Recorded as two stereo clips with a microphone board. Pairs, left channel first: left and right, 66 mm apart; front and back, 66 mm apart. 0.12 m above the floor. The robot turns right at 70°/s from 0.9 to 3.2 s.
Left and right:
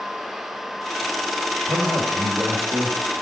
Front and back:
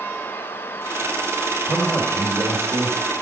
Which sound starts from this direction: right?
A man speaking, at 1.7 s.